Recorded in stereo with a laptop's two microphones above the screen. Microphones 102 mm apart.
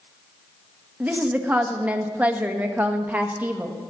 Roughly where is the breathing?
I don't hear breathing.